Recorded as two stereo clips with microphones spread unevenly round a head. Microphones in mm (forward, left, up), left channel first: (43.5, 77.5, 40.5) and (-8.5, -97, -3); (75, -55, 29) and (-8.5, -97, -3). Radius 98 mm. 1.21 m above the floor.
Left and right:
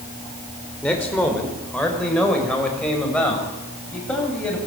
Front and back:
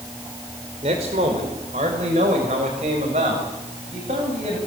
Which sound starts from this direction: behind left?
A man speaking, at 0.8 s.